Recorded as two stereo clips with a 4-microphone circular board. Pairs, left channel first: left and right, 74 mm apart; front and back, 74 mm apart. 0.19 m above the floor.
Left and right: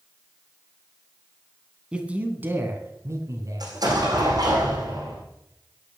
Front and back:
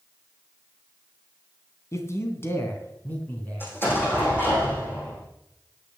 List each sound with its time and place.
1.9 s a man speaking: 20° right, 2 m; by 3.8 s 70° right, 3 m
3.6 s an explosion: 60° right, 6.5 m